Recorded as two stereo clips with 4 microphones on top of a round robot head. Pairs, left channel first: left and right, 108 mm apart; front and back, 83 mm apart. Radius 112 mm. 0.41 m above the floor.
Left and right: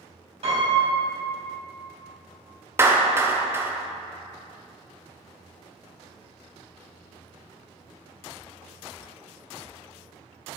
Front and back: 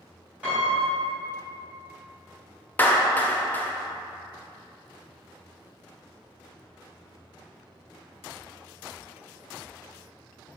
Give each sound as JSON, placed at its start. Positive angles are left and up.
{"t": 0.4, "sound": "a piano", "azimuth_deg": -105, "distance_m": 1.9}
{"t": 2.8, "sound": "a clap", "azimuth_deg": -45, "distance_m": 0.6}